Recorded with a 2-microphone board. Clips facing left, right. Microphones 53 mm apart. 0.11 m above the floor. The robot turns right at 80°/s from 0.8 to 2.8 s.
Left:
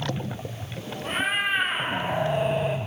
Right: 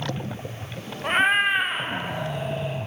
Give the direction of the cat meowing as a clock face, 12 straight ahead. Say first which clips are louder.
Right 6 dB; 2 o'clock.